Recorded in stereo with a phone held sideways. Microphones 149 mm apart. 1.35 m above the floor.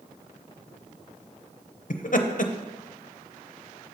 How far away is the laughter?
About 0.5 m.